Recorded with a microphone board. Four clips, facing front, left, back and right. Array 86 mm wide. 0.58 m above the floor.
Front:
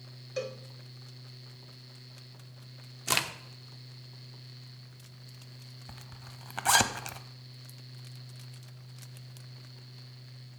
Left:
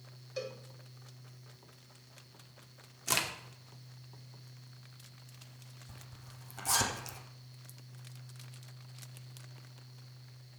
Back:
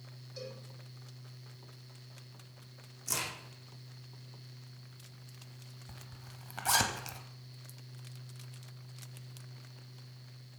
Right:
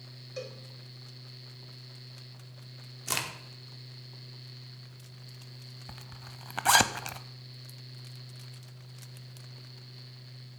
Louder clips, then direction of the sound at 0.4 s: Even, front 10 dB; straight ahead.